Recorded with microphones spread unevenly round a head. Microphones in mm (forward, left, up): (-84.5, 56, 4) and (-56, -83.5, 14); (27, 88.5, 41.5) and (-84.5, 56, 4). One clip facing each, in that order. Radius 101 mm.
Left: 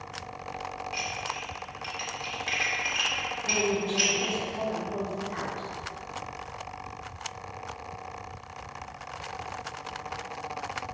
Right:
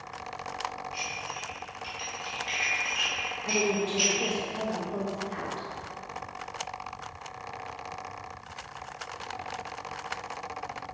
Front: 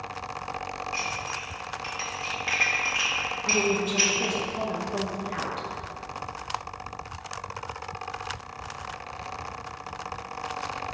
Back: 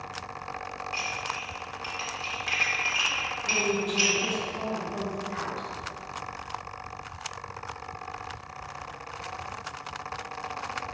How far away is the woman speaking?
About 1.3 m.